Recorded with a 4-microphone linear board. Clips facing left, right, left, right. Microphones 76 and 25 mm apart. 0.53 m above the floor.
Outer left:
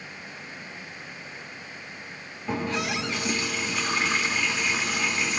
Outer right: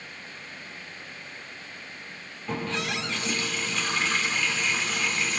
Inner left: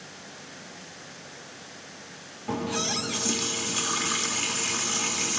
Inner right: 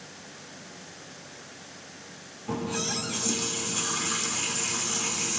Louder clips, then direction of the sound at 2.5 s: Outer left 2 dB, inner left 2 dB; 15° left (ahead or behind).